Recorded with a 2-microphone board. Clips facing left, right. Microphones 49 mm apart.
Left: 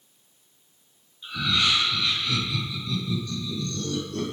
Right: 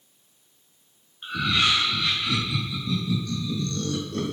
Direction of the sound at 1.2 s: 70° right (ahead or behind).